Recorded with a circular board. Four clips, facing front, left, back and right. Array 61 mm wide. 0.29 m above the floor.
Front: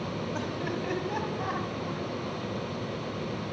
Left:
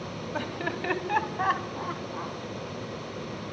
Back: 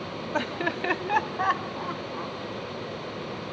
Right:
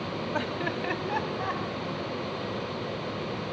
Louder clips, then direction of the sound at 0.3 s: Even, back 8 dB; 165° right.